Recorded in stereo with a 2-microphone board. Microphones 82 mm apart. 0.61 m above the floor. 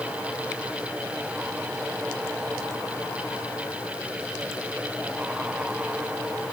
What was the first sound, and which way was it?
Only background noise.